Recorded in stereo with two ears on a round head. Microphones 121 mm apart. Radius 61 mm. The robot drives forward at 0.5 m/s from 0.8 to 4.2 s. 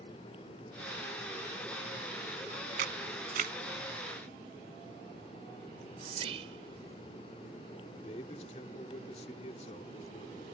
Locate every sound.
2.8 s a camera shutter: 70° right (ahead or behind); by 3.5 s 65° right (ahead or behind)
5.7 s whispering: 45° right (ahead or behind)
8.0 s a man speaking: 50° left (ahead or behind)